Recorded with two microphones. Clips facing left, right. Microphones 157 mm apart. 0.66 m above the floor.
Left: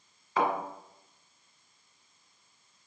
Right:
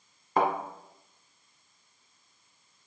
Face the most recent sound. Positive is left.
turn(degrees=-60)  # may be behind; listen again after turning